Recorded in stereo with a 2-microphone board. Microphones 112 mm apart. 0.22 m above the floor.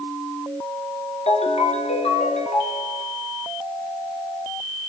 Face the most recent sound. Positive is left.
turn(degrees=70)  # may be behind; listen again after turning